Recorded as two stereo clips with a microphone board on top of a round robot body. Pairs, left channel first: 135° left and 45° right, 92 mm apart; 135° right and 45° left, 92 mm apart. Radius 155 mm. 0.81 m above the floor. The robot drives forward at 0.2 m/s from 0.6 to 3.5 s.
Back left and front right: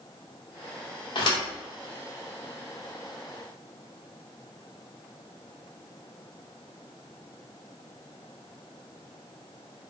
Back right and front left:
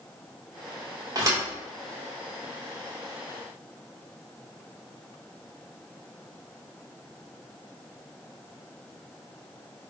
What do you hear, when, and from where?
1.1 s a thud: 100° left, 0.7 m; by 1.4 s 105° left, 0.8 m